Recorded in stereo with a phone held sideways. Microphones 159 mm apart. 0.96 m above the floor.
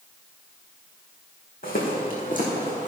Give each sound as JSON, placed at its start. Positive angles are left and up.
{"t": 1.6, "sound": "footsteps", "side_deg": 65, "distance_m": 3.5}